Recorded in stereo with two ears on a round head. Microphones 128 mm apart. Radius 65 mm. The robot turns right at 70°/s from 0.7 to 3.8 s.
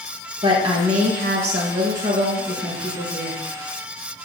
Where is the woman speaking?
145° right, 1.9 m; by 3.4 s 40° left, 1.9 m.